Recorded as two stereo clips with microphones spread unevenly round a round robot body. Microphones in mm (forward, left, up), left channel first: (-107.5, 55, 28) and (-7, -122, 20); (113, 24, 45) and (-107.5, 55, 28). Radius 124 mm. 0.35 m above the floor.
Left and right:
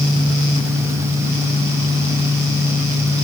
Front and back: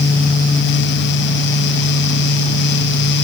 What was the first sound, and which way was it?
Only background noise.